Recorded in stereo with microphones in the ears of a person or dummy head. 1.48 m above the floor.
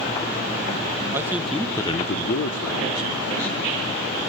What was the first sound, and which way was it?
A man speaking, 15° right (ahead or behind).